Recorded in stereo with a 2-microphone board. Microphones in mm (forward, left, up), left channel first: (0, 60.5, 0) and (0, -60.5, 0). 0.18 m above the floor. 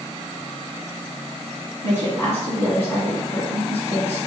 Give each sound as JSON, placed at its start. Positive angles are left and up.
{"t": 1.8, "sound": "a woman speaking", "side_deg": 25, "distance_m": 1.8}